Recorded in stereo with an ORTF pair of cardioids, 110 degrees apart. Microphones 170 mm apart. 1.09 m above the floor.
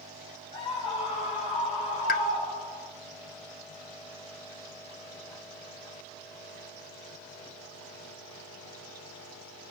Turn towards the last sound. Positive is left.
turn(degrees=60)